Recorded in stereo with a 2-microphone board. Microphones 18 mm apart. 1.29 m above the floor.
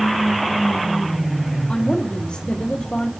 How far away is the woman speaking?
About 3 m.